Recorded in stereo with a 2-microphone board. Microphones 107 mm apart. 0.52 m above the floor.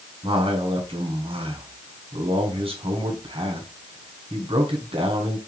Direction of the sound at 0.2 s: 60° right (ahead or behind).